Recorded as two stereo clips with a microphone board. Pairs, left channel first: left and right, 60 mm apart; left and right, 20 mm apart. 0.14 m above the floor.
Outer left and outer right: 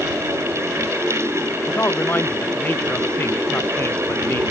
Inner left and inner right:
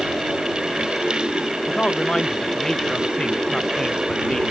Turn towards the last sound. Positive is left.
turn(degrees=35)  # may be behind; listen again after turning